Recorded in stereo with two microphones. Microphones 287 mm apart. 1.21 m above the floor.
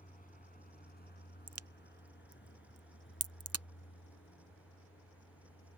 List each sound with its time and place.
0.0 s a vehicle: 25° left (ahead or behind); by 5.8 s 50° left (ahead or behind)
1.5 s a crack: 55° right (ahead or behind)